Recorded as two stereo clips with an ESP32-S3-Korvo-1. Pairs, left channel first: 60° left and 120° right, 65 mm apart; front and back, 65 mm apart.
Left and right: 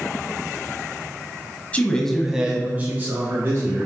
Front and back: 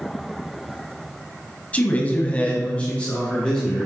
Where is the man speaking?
30° left, 1.1 m; by 3.9 s 75° right, 2.5 m.